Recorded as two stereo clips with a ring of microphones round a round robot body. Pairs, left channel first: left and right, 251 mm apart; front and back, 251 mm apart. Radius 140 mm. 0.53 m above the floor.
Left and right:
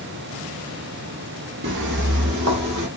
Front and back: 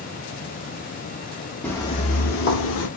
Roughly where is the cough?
No cough in this recording.